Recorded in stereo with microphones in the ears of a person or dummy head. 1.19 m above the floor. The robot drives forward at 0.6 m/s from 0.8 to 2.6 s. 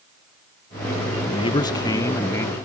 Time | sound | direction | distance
1.3 | a man speaking | 25° left (ahead or behind) | ?